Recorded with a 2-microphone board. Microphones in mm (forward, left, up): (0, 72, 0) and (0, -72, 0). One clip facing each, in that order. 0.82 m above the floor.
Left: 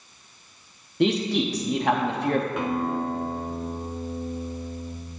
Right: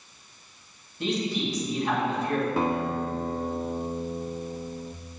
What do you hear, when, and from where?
1.0 s a man speaking: 70° left (ahead or behind), 1.0 m
2.6 s a guitar: 30° right (ahead or behind), 0.5 m